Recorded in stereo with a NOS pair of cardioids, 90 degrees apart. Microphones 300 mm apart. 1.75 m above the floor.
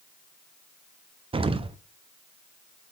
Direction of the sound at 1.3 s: 20° right.